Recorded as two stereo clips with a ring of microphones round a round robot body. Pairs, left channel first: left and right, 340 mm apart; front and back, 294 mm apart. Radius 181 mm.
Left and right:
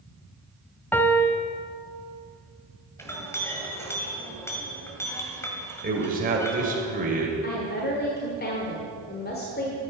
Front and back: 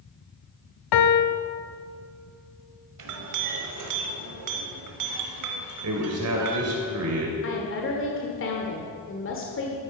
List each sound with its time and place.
0.9 s a piano: 5° left, 0.7 m
3.0 s a clink: 170° left, 1.5 m
5.8 s a man speaking: 155° right, 2.5 m
7.4 s a woman speaking: 35° left, 1.6 m